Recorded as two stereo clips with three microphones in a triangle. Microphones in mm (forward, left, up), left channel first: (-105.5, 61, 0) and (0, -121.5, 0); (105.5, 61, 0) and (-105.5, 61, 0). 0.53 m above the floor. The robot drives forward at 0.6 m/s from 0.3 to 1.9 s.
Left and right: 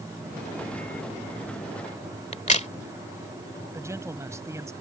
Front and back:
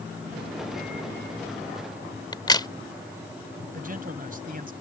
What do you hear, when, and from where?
2.3 s a crack: 70° left
3.7 s a man speaking: 135° right